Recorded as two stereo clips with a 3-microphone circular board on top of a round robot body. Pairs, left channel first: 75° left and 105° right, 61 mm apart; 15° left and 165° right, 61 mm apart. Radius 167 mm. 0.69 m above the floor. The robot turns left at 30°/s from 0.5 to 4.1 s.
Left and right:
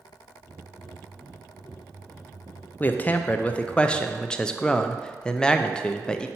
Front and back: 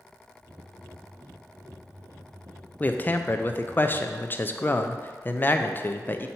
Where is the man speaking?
50° left, 0.6 m; by 6.3 s 10° left, 0.6 m.